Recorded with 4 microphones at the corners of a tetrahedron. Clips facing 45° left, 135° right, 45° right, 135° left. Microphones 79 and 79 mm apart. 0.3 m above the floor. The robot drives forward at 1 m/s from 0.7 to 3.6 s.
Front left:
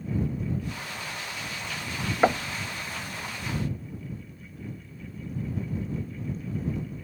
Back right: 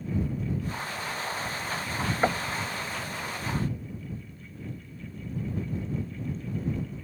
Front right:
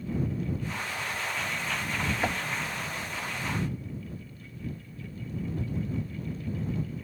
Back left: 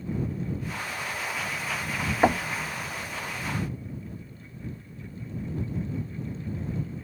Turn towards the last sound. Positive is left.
turn(degrees=155)